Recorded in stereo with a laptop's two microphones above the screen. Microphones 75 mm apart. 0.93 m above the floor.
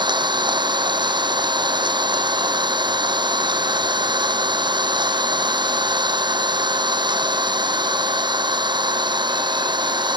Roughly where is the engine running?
Right.